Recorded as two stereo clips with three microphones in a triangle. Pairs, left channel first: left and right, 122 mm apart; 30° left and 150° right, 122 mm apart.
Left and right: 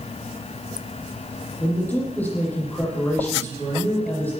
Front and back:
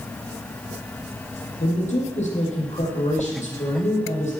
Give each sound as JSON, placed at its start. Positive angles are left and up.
{"t": 1.6, "sound": "a man speaking", "azimuth_deg": 15, "distance_m": 9.5}